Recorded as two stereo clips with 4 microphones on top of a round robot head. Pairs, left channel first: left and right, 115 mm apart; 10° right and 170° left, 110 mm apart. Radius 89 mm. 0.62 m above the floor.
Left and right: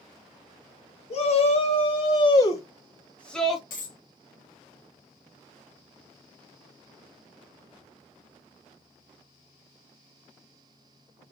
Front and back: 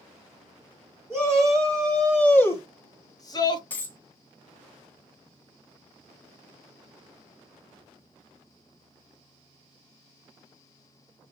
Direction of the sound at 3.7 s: 65° left.